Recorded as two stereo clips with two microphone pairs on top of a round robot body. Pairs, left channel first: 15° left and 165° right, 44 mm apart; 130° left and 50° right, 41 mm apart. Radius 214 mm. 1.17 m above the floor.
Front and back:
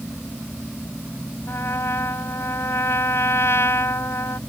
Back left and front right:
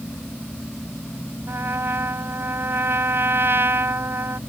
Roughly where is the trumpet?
Ahead.